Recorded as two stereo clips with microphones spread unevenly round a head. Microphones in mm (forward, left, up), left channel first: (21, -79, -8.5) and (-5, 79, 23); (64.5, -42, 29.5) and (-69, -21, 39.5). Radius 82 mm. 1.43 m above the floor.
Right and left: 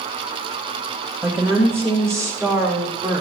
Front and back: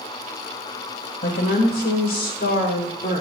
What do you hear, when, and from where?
1.2 s a woman speaking: 20° left, 5 m; by 3.2 s 30° left, 3.5 m